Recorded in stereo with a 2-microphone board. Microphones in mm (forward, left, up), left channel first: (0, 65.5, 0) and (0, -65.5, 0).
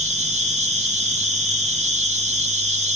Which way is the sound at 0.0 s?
55° right (ahead or behind).